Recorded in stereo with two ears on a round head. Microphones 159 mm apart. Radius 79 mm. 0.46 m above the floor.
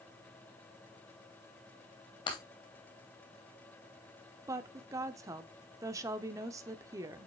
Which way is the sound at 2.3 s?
30° left (ahead or behind).